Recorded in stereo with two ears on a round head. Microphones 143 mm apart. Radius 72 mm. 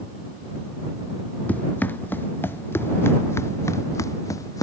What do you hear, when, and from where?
1.5 s running footsteps: 10° left (ahead or behind); by 4.6 s 20° left (ahead or behind)